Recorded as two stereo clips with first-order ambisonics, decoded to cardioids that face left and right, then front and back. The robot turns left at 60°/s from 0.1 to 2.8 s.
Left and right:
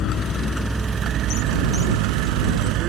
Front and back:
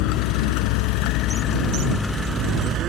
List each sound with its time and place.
0.0 s a vehicle: 35° left; by 2.9 s 130° right